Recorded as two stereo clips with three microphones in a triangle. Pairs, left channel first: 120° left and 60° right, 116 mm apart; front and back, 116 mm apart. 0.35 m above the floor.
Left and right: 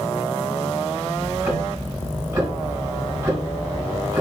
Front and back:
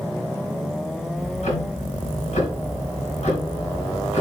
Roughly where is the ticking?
Ahead.